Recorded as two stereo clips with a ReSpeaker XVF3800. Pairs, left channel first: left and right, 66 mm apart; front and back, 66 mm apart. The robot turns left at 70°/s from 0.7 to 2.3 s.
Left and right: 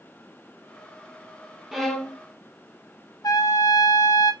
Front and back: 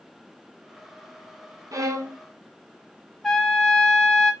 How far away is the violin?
About 0.9 m.